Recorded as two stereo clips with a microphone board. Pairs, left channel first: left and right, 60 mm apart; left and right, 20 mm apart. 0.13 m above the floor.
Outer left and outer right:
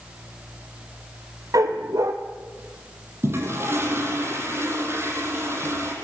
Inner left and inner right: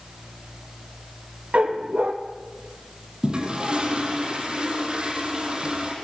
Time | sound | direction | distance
1.5 | a dog barking | 65° right (ahead or behind) | 2 m
3.2 | a toilet flushing | 45° right (ahead or behind) | 5.5 m